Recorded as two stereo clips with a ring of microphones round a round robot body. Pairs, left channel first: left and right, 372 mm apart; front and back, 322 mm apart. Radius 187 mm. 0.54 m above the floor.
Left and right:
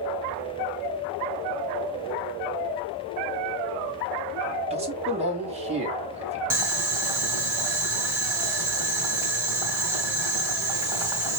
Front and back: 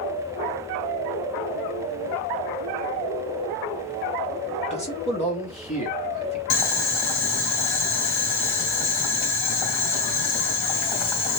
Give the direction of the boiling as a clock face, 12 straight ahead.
12 o'clock.